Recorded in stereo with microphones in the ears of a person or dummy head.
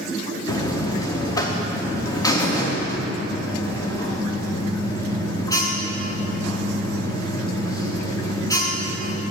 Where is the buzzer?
20° left (ahead or behind), 0.9 m.